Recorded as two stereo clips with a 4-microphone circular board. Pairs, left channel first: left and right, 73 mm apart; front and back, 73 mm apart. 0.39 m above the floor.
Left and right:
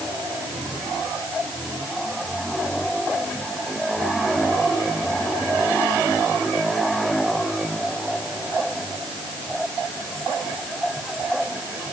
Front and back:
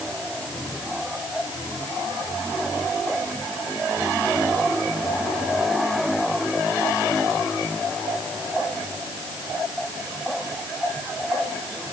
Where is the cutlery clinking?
No cutlery clinking in this recording.